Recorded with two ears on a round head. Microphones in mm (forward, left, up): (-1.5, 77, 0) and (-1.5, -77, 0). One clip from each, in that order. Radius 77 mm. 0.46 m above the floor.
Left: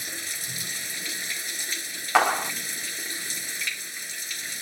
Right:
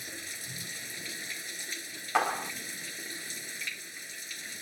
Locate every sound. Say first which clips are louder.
0.0 s running water: left 8 dB; 25° left (ahead or behind)
2.1 s a clap: left 7 dB; 25° left (ahead or behind)